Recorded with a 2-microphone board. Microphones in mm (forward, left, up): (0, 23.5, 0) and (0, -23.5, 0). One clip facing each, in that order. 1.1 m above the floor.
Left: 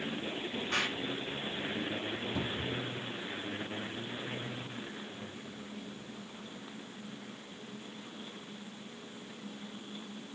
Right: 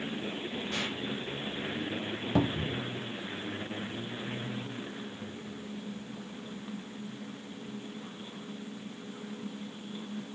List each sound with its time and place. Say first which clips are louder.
0.7 s an explosion: left 4 dB; 50° left (ahead or behind), 5.5 m
2.4 s a cupboard door: right 11 dB; 65° right (ahead or behind), 0.8 m